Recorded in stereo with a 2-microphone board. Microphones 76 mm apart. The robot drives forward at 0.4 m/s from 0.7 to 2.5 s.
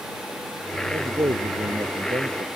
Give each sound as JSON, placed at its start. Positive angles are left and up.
{"t": 0.9, "sound": "a man speaking", "side_deg": -65}